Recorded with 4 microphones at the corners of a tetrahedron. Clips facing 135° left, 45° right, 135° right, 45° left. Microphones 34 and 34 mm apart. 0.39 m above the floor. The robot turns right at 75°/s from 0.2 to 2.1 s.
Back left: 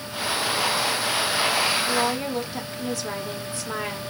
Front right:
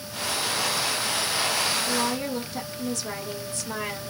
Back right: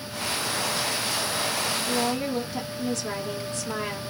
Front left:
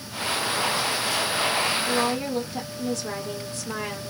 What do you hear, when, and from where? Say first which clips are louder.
1.9 s a woman speaking: back left 3 dB, front left 2 dB; 105° left, 1.2 m; by 4.1 s 125° left, 1.2 m